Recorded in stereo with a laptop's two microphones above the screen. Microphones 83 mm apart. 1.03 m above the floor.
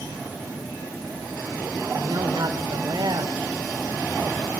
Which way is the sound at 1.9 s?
60° right (ahead or behind).